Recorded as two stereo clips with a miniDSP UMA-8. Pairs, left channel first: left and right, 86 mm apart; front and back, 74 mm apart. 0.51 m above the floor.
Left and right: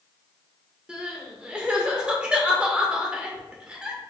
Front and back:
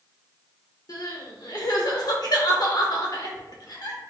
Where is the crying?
15° right, 0.7 m.